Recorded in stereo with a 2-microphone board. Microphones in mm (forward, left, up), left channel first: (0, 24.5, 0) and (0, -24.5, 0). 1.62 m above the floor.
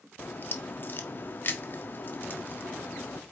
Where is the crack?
40° left (ahead or behind), 0.9 m.